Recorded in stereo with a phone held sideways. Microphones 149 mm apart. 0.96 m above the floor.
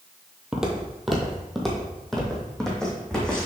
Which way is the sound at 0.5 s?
5° right (ahead or behind).